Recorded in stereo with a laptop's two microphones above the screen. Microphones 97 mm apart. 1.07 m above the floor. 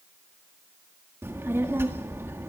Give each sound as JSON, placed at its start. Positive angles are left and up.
{"t": 1.2, "sound": "a child speaking", "side_deg": -25, "distance_m": 1.7}